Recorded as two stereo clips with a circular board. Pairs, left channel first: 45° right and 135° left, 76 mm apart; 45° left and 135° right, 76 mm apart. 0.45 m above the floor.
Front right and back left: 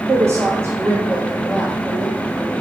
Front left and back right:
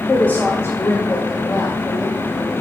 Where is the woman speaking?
110° left, 1.4 m; by 2.6 s 70° left, 3 m.